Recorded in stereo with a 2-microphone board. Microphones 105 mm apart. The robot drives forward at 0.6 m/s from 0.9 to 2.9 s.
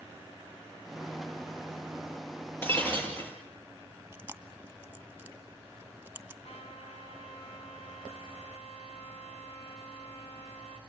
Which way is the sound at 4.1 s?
15° right (ahead or behind).